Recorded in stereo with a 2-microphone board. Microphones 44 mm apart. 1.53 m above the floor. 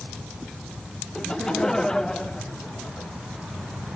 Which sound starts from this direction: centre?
Laughter, at 1.1 s.